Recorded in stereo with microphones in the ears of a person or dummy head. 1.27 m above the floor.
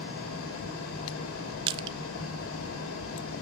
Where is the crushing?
30° right (ahead or behind), 0.7 m.